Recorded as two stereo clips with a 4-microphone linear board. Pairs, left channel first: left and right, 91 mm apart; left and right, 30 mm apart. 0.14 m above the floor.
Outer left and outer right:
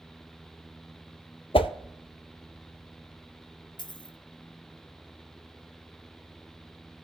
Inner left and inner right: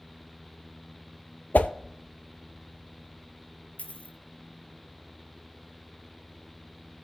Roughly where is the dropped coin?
Left.